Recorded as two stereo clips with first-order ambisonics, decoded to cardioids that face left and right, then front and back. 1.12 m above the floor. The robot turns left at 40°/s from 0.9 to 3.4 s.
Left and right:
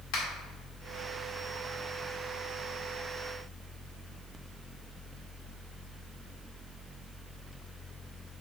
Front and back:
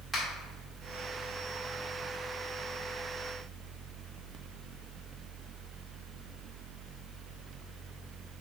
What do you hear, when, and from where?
0.1 s a finger snap: 95° left, 1.9 m